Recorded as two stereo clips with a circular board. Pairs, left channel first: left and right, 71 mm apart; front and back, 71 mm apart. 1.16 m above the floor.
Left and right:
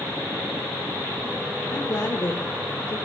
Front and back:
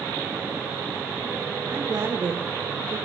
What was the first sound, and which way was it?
A woman speaking, 125° left.